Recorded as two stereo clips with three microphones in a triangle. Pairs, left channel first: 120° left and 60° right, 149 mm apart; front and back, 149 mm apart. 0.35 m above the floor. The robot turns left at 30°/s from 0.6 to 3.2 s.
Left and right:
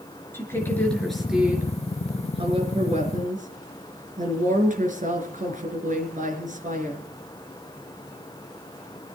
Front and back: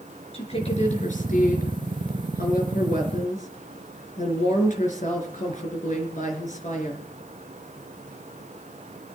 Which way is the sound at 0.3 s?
45° left.